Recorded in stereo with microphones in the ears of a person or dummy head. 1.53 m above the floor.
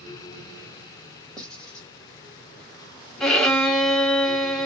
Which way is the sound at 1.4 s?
10° left (ahead or behind).